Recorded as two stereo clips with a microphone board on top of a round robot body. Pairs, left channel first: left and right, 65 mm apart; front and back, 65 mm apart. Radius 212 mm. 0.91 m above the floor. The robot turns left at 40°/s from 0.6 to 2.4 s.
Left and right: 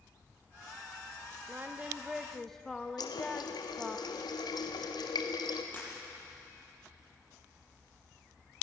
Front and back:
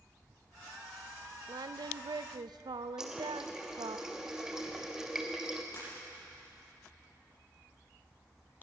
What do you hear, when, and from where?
1.5 s singing: 150° right, 0.5 m; by 4.0 s 175° left, 0.5 m
3.0 s a running tap: 100° left, 1.4 m
5.7 s breaking glass: 25° left, 8.5 m